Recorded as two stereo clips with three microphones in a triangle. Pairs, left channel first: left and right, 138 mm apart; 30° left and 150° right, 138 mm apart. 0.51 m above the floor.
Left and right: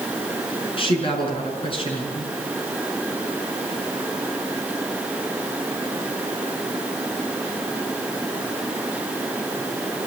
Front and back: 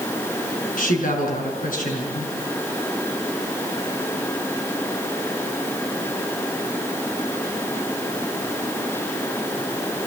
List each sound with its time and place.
0.8 s a woman speaking: 40° left, 6.5 m